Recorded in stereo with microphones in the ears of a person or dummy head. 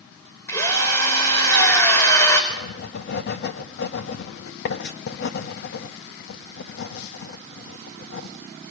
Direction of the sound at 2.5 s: 60° left (ahead or behind).